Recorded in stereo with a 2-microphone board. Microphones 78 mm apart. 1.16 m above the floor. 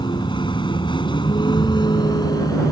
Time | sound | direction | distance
0.0 | a vehicle | 70° left (ahead or behind) | ?